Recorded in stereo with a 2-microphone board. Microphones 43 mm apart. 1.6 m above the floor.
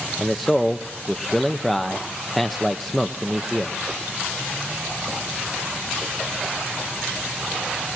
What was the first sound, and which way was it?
A man speaking, centre (ahead or behind).